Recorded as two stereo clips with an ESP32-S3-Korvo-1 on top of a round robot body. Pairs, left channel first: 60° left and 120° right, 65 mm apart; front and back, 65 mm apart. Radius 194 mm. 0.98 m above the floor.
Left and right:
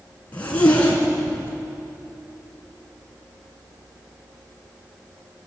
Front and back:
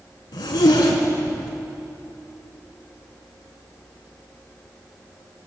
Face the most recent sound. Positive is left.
turn(degrees=-10)